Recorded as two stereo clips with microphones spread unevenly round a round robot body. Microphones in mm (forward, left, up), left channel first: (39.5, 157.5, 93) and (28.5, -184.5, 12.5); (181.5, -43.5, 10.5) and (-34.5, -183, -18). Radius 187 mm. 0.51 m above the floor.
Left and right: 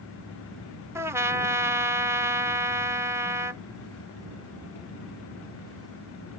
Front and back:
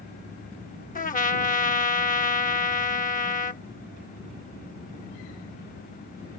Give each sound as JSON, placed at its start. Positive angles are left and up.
{"t": 0.9, "sound": "a trumpet", "azimuth_deg": -25}